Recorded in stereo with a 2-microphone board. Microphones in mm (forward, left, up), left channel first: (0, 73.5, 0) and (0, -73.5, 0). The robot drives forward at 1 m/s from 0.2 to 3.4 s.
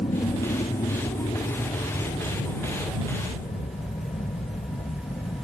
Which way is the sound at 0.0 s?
55° left (ahead or behind).